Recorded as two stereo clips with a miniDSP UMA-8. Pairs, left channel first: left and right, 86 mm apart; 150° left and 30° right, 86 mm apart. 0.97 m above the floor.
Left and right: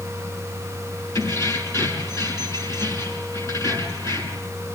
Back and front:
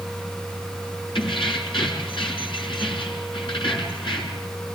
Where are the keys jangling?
145° left, 7.5 m.